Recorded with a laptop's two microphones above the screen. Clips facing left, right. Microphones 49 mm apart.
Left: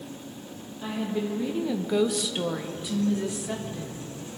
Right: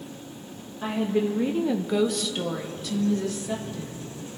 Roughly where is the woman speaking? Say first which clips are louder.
Right 5 dB; right.